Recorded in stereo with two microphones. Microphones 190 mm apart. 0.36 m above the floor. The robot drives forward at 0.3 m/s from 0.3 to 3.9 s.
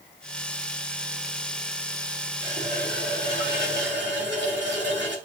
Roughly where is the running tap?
Right.